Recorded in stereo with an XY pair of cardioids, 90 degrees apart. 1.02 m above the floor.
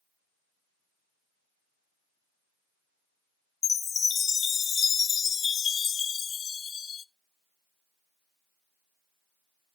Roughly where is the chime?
Ahead left.